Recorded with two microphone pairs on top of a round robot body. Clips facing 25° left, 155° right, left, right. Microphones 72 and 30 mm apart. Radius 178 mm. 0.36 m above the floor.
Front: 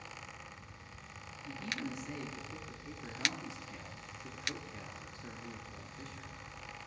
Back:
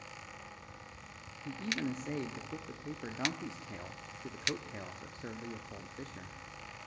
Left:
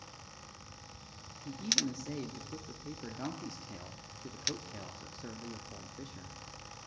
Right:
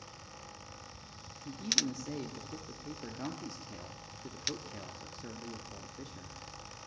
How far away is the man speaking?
About 0.9 m.